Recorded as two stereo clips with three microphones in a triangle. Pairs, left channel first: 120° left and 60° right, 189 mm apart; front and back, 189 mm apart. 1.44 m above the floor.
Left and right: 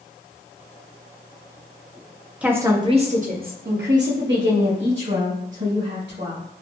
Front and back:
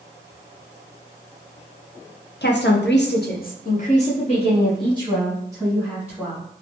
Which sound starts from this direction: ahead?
A woman speaking, at 2.4 s.